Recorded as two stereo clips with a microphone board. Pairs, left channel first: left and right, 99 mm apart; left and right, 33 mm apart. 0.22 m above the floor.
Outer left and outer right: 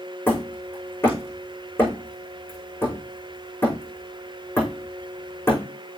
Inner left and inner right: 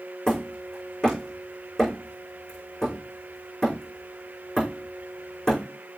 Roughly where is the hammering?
Left.